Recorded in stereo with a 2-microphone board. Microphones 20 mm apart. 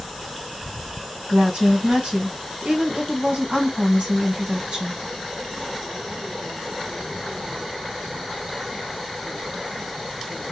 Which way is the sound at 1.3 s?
55° right (ahead or behind).